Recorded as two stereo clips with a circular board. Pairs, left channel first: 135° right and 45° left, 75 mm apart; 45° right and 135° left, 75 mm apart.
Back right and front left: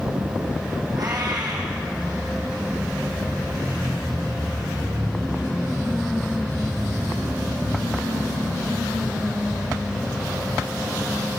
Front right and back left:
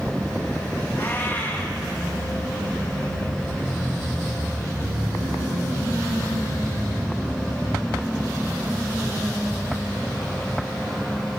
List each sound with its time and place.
0.9 s a cat meowing: 15° left, 6 m